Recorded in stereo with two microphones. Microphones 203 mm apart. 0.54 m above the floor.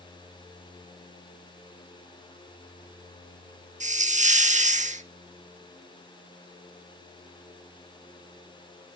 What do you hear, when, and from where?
3.8 s a hiss: 35° right (ahead or behind), 0.6 m